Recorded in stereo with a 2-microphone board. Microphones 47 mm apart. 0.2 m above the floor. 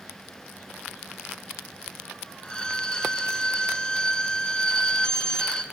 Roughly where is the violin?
Centre.